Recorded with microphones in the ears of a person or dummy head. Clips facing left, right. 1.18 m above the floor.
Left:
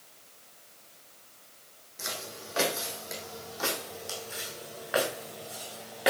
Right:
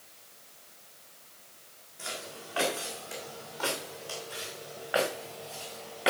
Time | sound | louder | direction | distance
2.0 | footsteps | left 1 dB | 55° left (ahead or behind) | 3 m